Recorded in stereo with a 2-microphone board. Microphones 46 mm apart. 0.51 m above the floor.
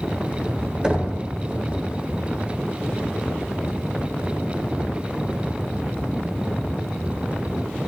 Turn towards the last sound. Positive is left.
turn(degrees=-15)  # may be behind; listen again after turning